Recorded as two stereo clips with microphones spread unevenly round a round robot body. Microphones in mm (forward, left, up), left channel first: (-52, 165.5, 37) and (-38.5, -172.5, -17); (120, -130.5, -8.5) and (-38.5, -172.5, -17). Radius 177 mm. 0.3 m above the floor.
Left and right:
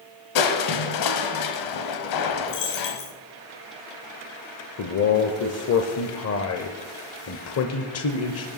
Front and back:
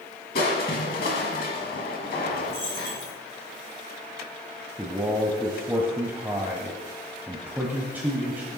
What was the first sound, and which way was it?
Crushing, 60° left.